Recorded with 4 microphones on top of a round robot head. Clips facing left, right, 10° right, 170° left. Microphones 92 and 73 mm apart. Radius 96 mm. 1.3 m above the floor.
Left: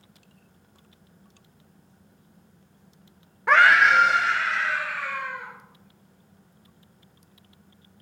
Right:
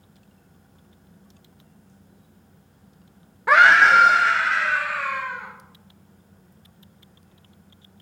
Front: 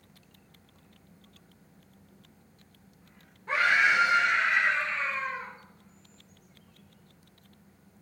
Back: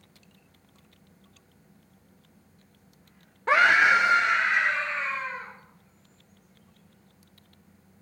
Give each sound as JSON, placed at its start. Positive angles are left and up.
{"t": 3.5, "sound": "a scream", "azimuth_deg": -175, "distance_m": 0.5}